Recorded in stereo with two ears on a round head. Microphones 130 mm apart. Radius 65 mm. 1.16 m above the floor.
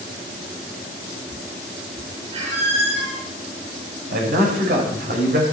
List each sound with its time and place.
2.3 s a squeak: 50° right (ahead or behind), 5 m
4.1 s a man speaking: 70° right (ahead or behind), 6 m